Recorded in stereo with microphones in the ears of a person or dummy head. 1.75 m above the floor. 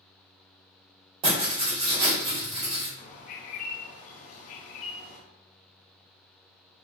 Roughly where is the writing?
Right.